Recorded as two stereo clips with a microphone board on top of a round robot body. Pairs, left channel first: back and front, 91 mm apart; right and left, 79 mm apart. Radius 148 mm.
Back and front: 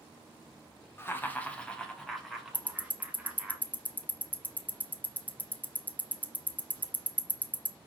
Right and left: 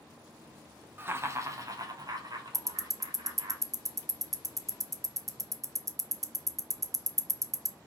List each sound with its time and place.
1.0 s laughter: 135° left, 1.1 m; by 3.5 s 80° left, 2 m
2.5 s ticking: 115° left, 0.6 m